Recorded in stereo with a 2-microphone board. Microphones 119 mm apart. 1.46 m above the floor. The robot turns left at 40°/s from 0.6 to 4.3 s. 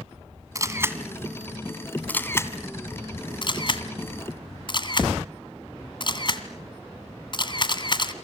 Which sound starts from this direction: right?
A camera shutter, at 0.6 s.